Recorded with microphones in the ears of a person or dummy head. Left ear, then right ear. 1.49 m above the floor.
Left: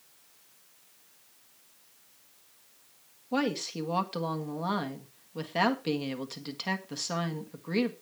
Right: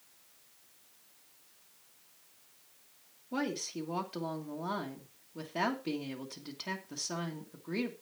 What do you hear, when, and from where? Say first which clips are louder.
3.3 s a woman speaking: left 6 dB; 30° left (ahead or behind), 1.6 m